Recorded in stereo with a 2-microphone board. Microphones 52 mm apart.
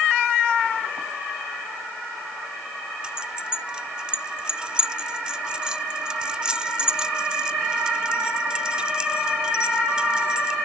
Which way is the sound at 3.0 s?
15° right (ahead or behind).